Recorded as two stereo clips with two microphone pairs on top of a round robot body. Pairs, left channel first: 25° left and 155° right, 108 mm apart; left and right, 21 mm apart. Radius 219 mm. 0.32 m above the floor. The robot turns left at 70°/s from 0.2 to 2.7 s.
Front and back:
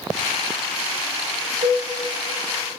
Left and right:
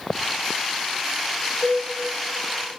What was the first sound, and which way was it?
A cowbell, 160° right.